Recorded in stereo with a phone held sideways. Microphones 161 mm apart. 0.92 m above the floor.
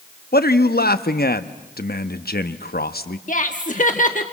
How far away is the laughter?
About 1.4 m.